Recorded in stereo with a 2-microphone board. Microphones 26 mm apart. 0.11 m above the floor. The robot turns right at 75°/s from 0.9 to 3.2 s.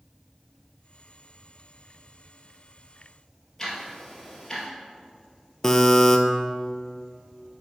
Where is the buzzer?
20° left (ahead or behind), 0.6 m.